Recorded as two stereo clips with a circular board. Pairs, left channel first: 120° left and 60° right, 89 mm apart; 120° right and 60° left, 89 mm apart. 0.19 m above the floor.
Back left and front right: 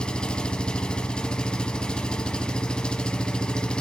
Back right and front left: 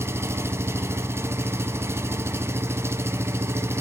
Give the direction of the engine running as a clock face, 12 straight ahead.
10 o'clock.